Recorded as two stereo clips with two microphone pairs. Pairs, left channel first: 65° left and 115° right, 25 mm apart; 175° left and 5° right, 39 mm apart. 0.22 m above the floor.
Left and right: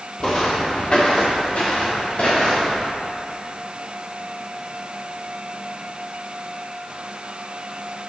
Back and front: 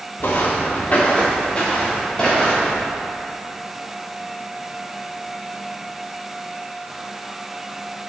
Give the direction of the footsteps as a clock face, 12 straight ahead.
8 o'clock.